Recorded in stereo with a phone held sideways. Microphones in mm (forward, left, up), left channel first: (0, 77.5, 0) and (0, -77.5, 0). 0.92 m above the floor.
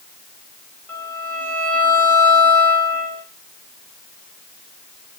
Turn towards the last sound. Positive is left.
turn(degrees=15)  # may be behind; listen again after turning